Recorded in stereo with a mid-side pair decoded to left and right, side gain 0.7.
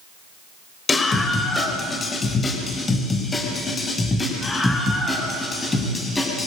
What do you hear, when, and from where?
0.9 s a scream: 20° left, 4.5 m; by 6.5 s 15° left, 7.5 m